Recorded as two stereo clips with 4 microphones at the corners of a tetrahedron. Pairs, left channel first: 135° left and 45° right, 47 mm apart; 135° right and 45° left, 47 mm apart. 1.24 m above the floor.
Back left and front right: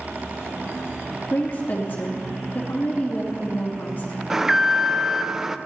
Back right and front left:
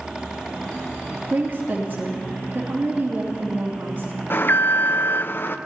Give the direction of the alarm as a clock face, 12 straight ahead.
4 o'clock.